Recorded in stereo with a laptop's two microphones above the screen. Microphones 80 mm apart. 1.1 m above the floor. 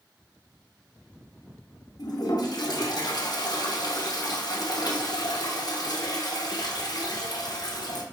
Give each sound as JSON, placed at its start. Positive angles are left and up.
{"t": 2.0, "sound": "a toilet flushing", "side_deg": 55, "distance_m": 0.9}